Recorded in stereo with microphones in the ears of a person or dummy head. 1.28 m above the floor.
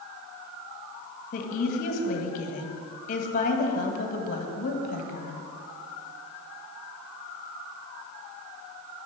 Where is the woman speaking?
50° left (ahead or behind), 1.6 m.